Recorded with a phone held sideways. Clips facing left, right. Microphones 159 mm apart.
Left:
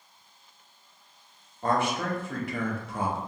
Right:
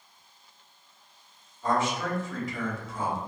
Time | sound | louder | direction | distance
1.6 | a man speaking | left 1 dB | 60° left (ahead or behind) | 0.8 m